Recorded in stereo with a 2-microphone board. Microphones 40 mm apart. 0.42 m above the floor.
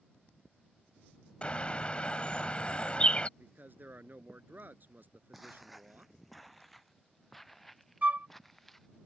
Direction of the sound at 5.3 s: 5° right (ahead or behind).